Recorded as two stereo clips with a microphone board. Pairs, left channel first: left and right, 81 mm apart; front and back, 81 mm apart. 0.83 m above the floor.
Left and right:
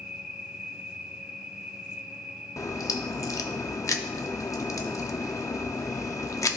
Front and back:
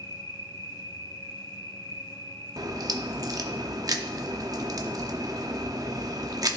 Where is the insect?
10° right, 2 m.